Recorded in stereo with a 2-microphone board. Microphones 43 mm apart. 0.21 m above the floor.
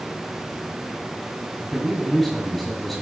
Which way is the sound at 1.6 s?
5° left (ahead or behind).